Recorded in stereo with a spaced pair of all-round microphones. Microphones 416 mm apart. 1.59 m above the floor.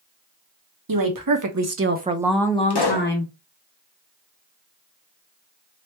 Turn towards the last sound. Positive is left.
turn(degrees=65)  # may be behind; listen again after turning